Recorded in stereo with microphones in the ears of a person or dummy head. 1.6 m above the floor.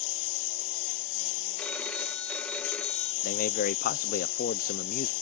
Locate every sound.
0.0 s a lawn mower: 75° left (ahead or behind)
1.6 s a phone ringing: 5° left (ahead or behind)
3.2 s a man speaking: 45° left (ahead or behind)